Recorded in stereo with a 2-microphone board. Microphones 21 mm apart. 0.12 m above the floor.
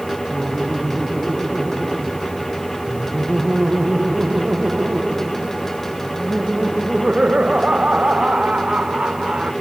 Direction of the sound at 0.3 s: 80° right.